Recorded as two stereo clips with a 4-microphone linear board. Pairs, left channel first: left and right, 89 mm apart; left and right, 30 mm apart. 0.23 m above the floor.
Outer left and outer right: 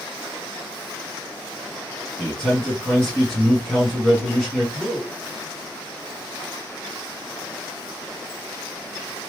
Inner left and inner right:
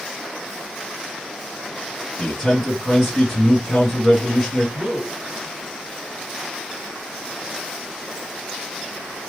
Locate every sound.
2.2 s a man speaking: 5° left (ahead or behind), 2.5 m
4.8 s a man speaking: centre (ahead or behind), 1.6 m